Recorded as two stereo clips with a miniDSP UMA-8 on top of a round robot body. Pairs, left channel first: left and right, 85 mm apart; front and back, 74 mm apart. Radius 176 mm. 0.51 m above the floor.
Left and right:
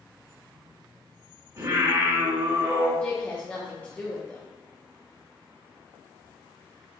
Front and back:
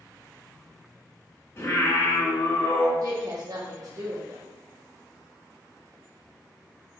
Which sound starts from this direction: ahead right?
Singing, at 1.6 s.